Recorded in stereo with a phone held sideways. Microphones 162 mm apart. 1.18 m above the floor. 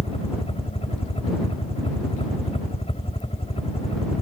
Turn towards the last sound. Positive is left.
turn(degrees=35)  # may be behind; listen again after turning